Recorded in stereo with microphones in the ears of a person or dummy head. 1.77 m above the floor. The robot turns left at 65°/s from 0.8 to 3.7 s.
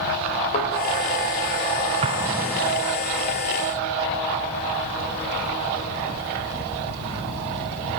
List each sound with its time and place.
0.5 s a thud: 35° left (ahead or behind), 2 m
2.0 s an explosion: 30° right (ahead or behind), 0.5 m; by 2.9 s 25° left (ahead or behind), 0.5 m